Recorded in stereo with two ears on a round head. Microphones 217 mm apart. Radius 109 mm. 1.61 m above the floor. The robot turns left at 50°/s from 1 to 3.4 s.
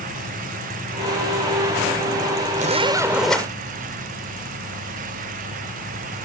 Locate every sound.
2.6 s a zipper: 145° right; by 3.5 s 175° left